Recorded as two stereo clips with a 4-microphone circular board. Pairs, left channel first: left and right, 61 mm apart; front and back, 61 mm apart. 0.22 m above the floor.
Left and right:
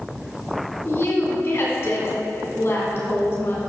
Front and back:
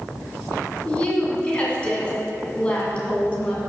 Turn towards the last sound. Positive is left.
turn(degrees=65)